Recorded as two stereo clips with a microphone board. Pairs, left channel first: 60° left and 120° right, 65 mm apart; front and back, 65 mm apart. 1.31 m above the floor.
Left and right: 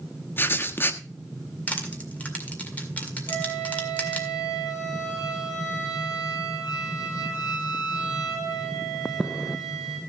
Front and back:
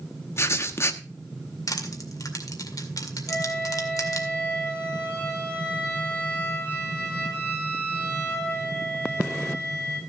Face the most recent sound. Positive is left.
turn(degrees=80)